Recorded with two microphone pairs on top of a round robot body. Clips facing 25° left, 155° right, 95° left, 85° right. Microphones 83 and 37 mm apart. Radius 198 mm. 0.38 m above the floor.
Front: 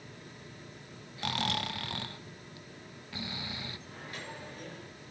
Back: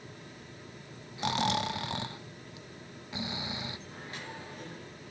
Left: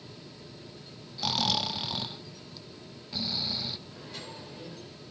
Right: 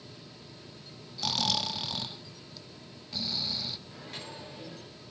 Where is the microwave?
90° right, 8.5 m.